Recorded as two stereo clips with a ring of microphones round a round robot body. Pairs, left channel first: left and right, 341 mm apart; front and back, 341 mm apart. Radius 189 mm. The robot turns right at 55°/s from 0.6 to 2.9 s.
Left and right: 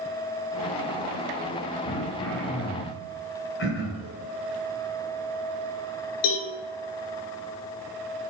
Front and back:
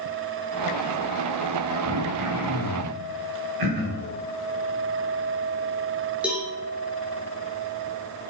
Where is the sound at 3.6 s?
150° left, 2.5 m.